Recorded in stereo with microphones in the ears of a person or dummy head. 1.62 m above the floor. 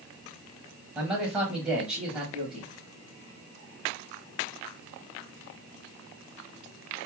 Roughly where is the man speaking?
Centre.